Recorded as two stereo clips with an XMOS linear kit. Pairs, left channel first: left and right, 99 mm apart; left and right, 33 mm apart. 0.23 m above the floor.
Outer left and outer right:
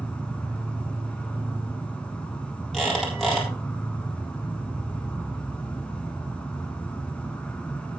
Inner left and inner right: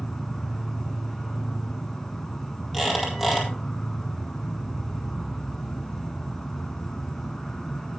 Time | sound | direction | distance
0.0 | an insect | 10° left (ahead or behind) | 1.4 m
2.7 | a squeak | centre (ahead or behind) | 4 m